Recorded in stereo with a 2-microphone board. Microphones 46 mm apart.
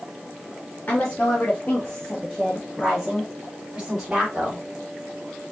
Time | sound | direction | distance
0.9 | a woman speaking | 45° left (ahead or behind) | 1.6 m